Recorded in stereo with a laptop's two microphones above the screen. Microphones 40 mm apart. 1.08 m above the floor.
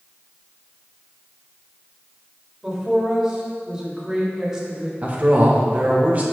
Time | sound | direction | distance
2.6 | a woman speaking | 10° right (ahead or behind) | 3.5 m
5.0 | a man speaking | 35° right (ahead or behind) | 1.0 m